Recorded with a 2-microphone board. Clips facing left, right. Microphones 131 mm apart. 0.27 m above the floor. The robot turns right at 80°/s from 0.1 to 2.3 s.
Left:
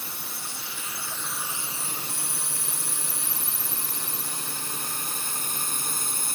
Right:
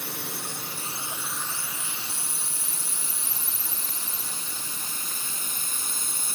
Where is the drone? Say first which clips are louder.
Right 4 dB; 65° right (ahead or behind); by 6.3 s 60° left (ahead or behind).